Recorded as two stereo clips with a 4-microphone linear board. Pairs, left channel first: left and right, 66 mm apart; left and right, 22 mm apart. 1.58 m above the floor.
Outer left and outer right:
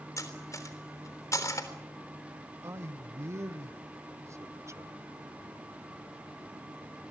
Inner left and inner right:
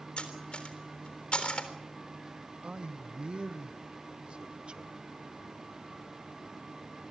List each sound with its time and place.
0.2 s cutlery clinking: 55° left (ahead or behind), 3.5 m
2.6 s a man speaking: 45° right (ahead or behind), 1.1 m